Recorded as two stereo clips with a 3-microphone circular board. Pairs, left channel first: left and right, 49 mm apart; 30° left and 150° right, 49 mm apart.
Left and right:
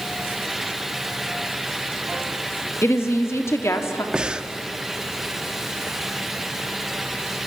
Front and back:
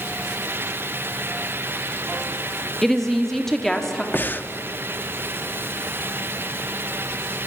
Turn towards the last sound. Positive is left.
turn(degrees=-20)